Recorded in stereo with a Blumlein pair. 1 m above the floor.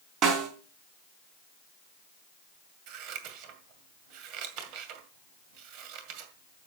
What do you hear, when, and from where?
0.2 s a snare drum: 35° right, 4 m
2.9 s scissors: 40° right, 2 m